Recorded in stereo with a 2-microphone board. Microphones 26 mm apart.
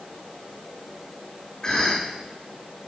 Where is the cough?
25° left (ahead or behind), 3.5 m.